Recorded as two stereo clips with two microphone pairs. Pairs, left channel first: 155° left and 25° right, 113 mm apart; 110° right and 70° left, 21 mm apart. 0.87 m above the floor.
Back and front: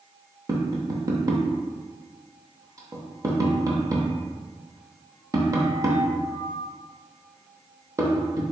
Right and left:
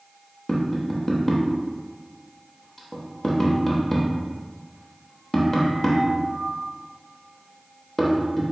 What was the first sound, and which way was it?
Tapping, 45° right.